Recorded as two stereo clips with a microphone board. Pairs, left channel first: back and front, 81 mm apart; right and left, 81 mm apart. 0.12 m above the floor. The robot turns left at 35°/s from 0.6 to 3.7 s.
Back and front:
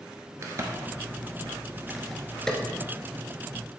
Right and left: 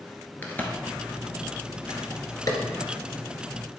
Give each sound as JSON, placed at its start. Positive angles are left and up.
{"t": 0.4, "sound": "a crack", "azimuth_deg": -35, "distance_m": 1.2}